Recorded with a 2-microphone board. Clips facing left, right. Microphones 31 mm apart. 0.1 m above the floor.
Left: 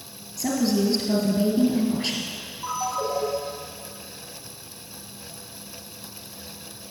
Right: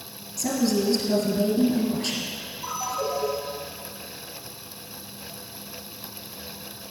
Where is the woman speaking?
15° left (ahead or behind), 2 m.